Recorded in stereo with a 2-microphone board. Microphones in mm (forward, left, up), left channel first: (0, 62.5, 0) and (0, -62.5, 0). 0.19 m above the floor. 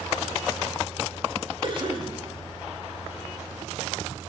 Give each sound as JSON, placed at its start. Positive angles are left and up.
{"t": 1.6, "sound": "a cough", "side_deg": -40, "distance_m": 5.5}